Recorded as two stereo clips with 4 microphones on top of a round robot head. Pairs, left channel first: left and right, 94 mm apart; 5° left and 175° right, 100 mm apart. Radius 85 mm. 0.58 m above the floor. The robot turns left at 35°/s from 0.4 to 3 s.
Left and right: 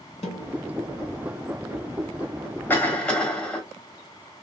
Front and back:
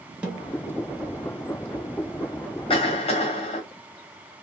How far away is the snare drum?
About 1.4 m.